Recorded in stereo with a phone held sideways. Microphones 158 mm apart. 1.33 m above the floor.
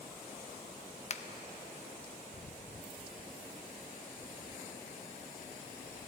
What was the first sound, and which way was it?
A finger snap, 45° left (ahead or behind).